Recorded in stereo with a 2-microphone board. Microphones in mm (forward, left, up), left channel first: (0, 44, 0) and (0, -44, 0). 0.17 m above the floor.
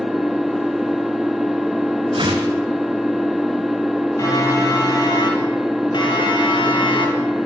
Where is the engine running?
5° right (ahead or behind), 1.4 m.